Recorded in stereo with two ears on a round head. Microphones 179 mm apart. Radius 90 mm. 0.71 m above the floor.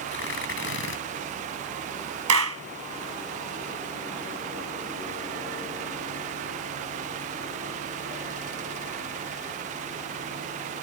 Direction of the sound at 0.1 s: 60° left (ahead or behind).